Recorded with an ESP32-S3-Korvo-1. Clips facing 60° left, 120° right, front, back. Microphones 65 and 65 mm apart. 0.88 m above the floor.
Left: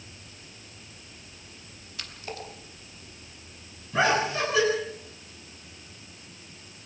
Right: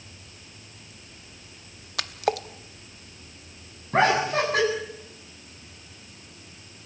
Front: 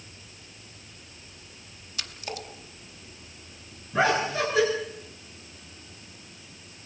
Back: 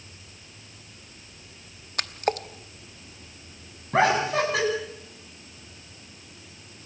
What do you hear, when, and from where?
2.0 s a splash: 140° right, 0.8 m
3.9 s laughter: 160° right, 8.5 m